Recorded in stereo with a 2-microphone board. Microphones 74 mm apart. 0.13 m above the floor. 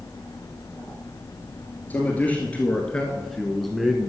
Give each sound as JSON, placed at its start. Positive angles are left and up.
{"t": 1.9, "sound": "a man speaking", "side_deg": 20, "distance_m": 1.9}